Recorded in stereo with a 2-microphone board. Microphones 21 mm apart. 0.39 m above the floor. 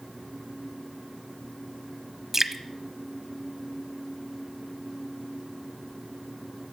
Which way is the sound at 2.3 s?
25° right (ahead or behind).